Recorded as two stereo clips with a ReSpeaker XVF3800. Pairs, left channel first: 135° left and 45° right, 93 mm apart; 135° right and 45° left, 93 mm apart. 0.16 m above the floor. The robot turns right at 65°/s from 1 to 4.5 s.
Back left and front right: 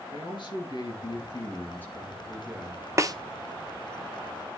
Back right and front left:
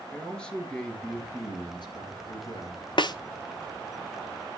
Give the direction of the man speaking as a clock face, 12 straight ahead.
7 o'clock.